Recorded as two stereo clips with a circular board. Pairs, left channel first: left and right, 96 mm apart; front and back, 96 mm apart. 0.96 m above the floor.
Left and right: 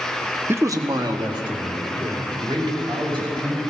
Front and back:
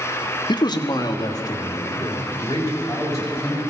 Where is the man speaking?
25° right, 0.6 m; by 3.6 s 55° right, 5 m.